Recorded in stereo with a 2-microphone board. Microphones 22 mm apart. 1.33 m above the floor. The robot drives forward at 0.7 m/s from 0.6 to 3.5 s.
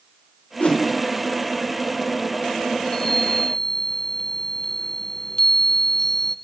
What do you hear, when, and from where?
0.6 s a whoosh: 85° left, 3.5 m
2.8 s a chime: 20° left (ahead or behind), 1.4 m; by 6.3 s 30° left (ahead or behind), 1.0 m